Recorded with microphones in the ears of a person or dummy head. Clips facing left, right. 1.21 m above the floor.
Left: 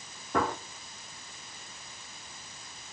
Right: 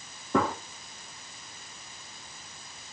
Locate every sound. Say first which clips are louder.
0.3 s a gunshot: right 3 dB; 70° right (ahead or behind), 0.9 m